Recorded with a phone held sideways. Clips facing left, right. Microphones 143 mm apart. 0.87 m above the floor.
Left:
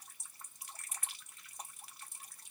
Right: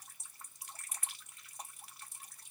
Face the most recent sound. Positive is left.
No sound to turn to.